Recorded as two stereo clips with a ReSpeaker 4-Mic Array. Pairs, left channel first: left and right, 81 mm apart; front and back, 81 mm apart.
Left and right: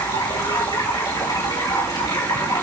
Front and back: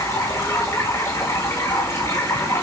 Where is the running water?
55° left, 5.5 m.